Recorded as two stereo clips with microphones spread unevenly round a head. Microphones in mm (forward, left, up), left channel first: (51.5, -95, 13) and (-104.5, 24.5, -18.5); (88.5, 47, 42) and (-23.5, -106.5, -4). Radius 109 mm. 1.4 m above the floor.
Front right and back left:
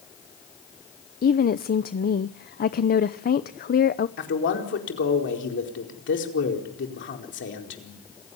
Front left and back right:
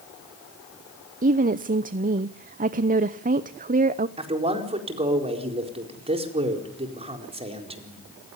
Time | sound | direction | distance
1.2 | a woman speaking | 85° right | 0.8 m
4.2 | a man speaking | 65° right | 4.5 m